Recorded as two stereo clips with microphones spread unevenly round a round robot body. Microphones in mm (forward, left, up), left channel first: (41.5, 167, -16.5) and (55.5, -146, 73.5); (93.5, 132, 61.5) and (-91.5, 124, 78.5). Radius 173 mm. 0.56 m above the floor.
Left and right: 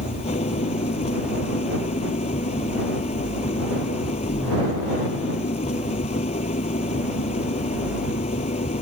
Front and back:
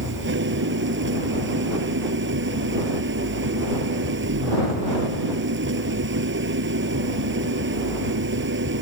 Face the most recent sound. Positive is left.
turn(degrees=165)